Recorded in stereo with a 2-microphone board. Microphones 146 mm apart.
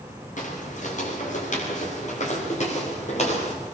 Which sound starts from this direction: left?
Footsteps, at 0.4 s.